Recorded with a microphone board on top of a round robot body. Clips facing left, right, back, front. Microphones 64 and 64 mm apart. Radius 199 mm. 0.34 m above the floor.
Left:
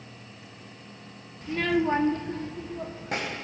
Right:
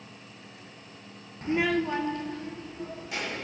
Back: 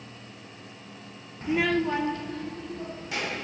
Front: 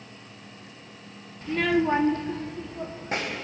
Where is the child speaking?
125° right, 0.7 m; by 3.3 s 50° left, 2.5 m.